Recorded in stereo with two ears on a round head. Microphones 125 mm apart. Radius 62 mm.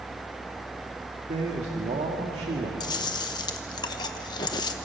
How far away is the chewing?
About 1.1 m.